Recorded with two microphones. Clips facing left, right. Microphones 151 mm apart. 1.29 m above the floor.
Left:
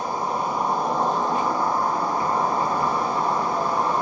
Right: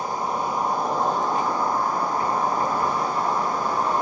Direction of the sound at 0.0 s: 30° left (ahead or behind).